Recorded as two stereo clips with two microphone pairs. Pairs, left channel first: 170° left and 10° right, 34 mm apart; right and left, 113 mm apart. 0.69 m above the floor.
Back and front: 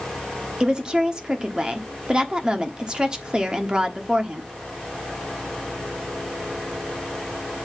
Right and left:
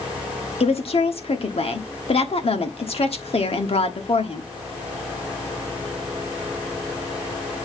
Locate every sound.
0.6 s a woman speaking: 70° right, 1.2 m